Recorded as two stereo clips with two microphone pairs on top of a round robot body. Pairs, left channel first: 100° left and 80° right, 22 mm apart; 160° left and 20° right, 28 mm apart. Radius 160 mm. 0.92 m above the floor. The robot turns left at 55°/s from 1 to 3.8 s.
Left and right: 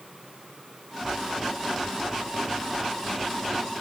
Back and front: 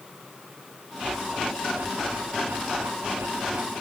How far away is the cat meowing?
No cat meowing in this recording.